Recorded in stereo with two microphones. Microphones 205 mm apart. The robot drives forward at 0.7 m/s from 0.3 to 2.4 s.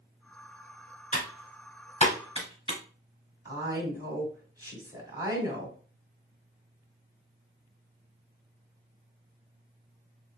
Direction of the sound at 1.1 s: 40° left (ahead or behind).